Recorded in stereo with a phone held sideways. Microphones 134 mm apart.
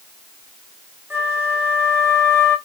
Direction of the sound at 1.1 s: 15° right (ahead or behind).